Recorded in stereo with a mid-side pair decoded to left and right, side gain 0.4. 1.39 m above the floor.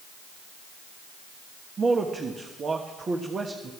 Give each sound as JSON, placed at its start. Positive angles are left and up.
{"t": 1.8, "sound": "a man speaking", "azimuth_deg": -45, "distance_m": 1.5}